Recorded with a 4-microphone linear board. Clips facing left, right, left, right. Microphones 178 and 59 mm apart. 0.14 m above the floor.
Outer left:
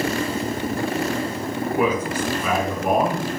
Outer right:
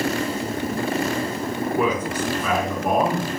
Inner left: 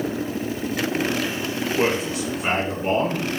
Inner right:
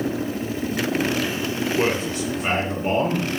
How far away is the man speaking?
About 1.2 m.